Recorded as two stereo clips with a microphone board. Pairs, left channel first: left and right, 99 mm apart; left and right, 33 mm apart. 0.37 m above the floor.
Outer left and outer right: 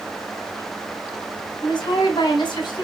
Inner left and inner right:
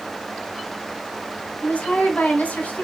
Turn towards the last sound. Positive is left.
turn(degrees=50)  # may be behind; listen again after turning